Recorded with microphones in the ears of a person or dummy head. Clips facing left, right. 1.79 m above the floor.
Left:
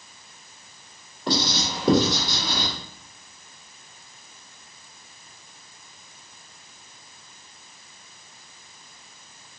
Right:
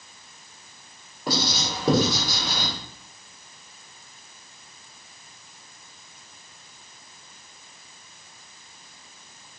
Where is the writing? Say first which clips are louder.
Left 2 dB; 10° right (ahead or behind), 1.4 m.